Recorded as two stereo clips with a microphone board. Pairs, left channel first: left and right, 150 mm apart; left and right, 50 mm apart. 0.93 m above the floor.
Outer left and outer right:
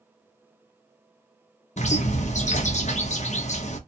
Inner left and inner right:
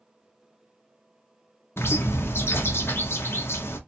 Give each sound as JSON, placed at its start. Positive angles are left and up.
{"t": 1.8, "sound": "a bird", "side_deg": 50, "distance_m": 0.6}